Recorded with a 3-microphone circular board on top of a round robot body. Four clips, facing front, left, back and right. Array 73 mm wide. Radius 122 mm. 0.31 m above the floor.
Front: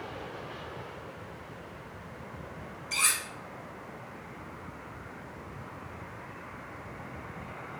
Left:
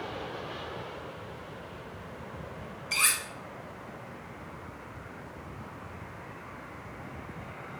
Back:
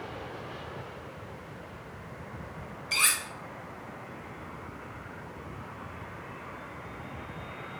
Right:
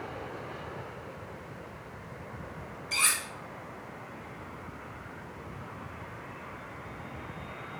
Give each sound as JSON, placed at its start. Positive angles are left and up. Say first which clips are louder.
{"t": 2.9, "sound": "cutlery clinking", "louder": "left 1 dB, back 2 dB", "azimuth_deg": 145, "distance_m": 0.8}